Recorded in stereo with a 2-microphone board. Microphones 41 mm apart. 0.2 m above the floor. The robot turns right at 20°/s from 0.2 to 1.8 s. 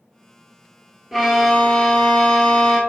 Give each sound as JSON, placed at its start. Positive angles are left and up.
{"t": 1.1, "sound": "a violin", "side_deg": 0, "distance_m": 0.7}